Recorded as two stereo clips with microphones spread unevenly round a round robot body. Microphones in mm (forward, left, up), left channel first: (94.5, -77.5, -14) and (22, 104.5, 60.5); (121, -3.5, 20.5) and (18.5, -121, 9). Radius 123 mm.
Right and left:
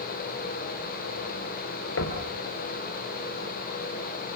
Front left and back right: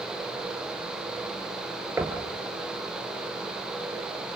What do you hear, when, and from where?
2.0 s knocking: 55° right, 4 m